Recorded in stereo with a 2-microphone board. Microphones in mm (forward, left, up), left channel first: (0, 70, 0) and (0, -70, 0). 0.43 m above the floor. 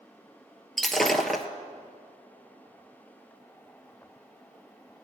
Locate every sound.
0.8 s breaking glass: centre (ahead or behind), 1.1 m